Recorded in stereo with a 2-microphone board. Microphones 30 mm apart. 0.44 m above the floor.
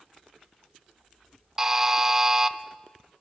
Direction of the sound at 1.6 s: 15° right (ahead or behind).